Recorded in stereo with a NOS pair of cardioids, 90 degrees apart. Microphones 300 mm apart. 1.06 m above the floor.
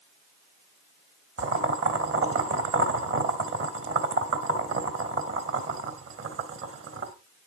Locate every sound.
1.4 s boiling: 45° right, 2.5 m